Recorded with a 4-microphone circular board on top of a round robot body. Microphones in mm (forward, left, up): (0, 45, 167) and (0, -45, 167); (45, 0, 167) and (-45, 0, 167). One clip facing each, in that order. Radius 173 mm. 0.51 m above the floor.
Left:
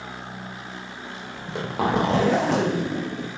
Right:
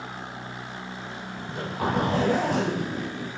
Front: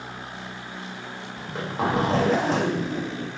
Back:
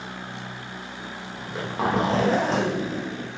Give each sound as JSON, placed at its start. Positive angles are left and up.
{"t": 1.4, "sound": "a zipper", "azimuth_deg": 90, "distance_m": 0.6}